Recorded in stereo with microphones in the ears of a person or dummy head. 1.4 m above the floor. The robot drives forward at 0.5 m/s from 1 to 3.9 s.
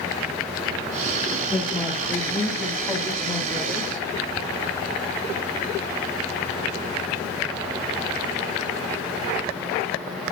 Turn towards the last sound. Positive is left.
turn(degrees=5)  # may be behind; listen again after turning